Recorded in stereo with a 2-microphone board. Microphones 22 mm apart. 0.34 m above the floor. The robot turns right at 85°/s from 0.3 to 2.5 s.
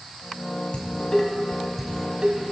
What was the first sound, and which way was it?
Dishes clattering, 55° left (ahead or behind).